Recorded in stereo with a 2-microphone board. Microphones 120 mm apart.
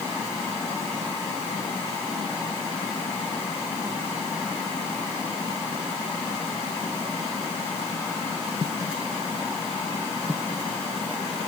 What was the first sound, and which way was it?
Only background noise.